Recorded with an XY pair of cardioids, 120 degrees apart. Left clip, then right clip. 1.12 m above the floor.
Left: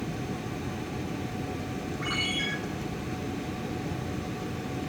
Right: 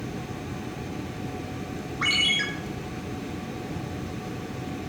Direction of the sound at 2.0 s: 70° right.